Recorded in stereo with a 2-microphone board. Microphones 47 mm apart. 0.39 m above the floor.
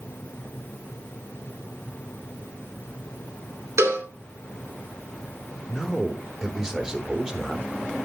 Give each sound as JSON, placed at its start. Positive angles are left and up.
{"t": 3.8, "sound": "a cowbell", "side_deg": -70, "distance_m": 2.5}
{"t": 5.7, "sound": "a man speaking", "side_deg": -15, "distance_m": 1.1}